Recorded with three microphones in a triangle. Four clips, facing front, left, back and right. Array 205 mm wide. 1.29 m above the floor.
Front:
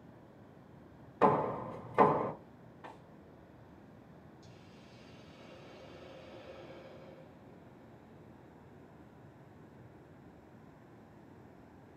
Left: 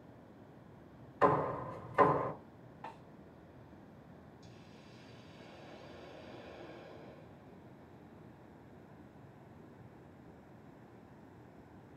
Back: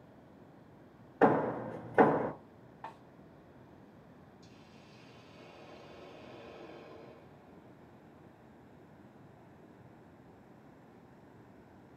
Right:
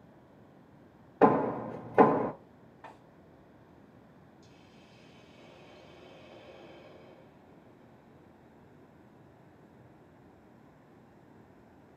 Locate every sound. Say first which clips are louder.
1.2 s hammering: right 6 dB, back 1 dB; 105° right, 0.6 m
2.8 s a snare drum: left 2 dB, back 4 dB; 170° left, 2.0 m
4.4 s a hiss: left 1 dB, even; 140° left, 2.5 m